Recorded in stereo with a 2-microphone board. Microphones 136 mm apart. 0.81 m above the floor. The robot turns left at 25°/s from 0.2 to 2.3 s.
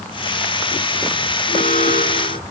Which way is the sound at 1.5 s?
65° left (ahead or behind).